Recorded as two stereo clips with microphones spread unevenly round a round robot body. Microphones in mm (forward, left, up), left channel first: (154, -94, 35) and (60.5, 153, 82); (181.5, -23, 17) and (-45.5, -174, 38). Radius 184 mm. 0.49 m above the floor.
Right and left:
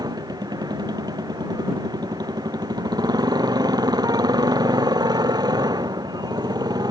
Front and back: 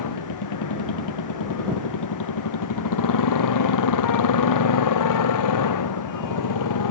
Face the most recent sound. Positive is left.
turn(degrees=35)